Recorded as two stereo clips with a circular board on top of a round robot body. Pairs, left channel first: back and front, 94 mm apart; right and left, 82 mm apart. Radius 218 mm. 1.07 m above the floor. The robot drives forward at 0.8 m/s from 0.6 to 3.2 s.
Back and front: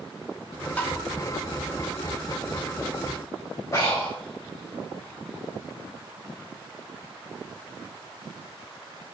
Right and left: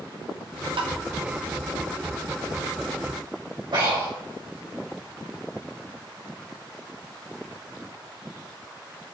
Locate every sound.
0.8 s tapping: 105° left, 1.4 m; by 1.0 s 110° left, 1.4 m
3.7 s breathing: 120° left, 4 m